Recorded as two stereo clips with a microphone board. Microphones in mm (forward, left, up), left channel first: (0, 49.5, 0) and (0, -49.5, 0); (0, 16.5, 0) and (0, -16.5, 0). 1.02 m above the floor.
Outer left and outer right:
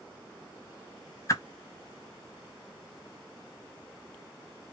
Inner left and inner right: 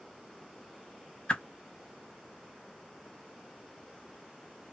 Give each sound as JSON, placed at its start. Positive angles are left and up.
{"t": 1.3, "sound": "a whoosh", "side_deg": 35, "distance_m": 0.8}